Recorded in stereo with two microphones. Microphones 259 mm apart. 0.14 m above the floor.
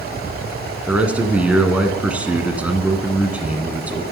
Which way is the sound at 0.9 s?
5° right (ahead or behind).